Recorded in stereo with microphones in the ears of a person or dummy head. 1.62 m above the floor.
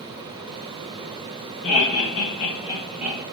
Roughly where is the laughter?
Left.